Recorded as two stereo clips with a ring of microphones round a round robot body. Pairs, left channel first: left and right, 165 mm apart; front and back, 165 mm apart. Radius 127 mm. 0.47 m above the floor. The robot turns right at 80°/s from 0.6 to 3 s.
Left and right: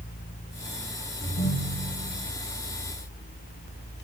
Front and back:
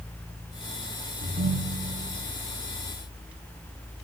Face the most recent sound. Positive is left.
turn(degrees=-85)